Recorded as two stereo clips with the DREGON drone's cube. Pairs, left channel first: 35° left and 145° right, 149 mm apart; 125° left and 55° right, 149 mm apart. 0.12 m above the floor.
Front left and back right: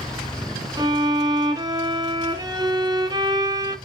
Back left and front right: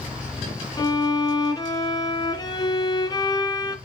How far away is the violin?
About 2 m.